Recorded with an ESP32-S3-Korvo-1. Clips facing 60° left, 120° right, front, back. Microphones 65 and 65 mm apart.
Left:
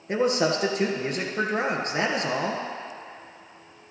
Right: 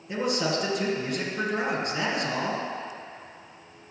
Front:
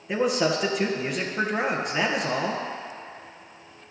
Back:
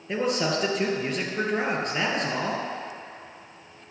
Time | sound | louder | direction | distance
0.1 | a man speaking | left 4 dB, front 2 dB | 85° left | 1.8 m